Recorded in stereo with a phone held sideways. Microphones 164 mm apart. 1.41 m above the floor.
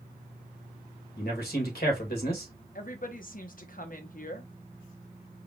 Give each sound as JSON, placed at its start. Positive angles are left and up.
{"t": 1.2, "sound": "a man speaking", "side_deg": 70, "distance_m": 2.0}
{"t": 2.8, "sound": "a woman speaking", "side_deg": 55, "distance_m": 1.0}